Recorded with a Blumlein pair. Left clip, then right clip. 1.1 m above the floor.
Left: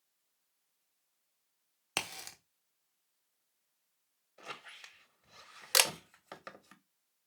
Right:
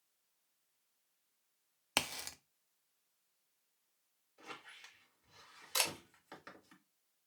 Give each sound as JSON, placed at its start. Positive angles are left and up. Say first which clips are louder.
{"t": 2.0, "sound": "a crack", "louder": "right 1 dB", "azimuth_deg": -5, "distance_m": 0.6}
{"t": 4.4, "sound": "a squeak", "louder": "left 4 dB", "azimuth_deg": 65, "distance_m": 0.8}
{"t": 5.7, "sound": "a camera shutter", "louder": "left 8 dB", "azimuth_deg": 40, "distance_m": 0.5}